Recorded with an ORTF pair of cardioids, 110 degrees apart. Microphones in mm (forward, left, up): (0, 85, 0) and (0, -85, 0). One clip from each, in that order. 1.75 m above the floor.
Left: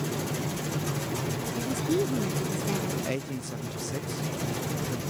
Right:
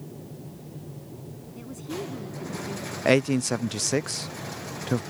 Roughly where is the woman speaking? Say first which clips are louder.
Left 7 dB; ahead left.